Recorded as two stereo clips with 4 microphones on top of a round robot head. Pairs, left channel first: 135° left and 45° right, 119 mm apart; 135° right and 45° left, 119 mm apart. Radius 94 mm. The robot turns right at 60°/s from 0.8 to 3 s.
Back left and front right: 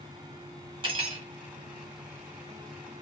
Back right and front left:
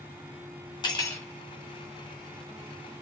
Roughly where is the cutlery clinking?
Right.